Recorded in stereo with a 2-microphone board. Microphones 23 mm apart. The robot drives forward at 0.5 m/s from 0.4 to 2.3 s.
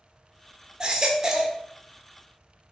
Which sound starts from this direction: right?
A baby crying, at 0.8 s.